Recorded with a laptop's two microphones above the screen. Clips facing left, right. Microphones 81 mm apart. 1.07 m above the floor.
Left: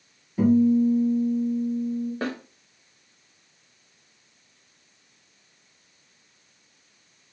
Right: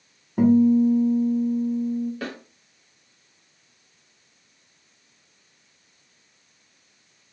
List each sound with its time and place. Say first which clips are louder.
0.4 s a guitar: right 2 dB; 55° right (ahead or behind), 1.2 m
2.2 s a snare drum: left 3 dB; 35° left (ahead or behind), 0.8 m